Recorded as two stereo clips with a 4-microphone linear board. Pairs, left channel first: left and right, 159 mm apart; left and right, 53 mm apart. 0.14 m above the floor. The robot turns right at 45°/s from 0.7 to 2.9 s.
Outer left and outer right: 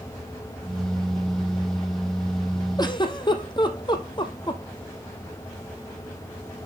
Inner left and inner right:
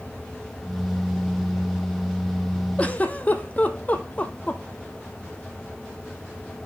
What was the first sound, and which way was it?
A giggle, 25° left (ahead or behind).